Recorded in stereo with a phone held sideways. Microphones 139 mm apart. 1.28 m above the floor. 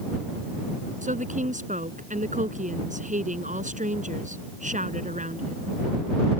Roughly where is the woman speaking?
Right.